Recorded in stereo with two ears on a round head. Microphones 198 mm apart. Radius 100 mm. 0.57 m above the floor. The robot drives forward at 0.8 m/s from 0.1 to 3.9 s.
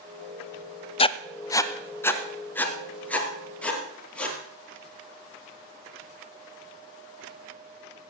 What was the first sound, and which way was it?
Writing, 25° left (ahead or behind).